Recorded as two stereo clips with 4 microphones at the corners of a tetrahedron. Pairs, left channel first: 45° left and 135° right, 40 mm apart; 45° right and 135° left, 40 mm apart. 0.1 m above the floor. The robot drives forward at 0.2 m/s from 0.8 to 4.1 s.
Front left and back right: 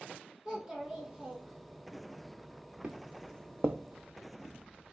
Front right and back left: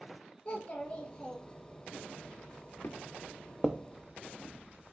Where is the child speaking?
75° right, 0.8 m; by 2.0 s 105° right, 0.8 m.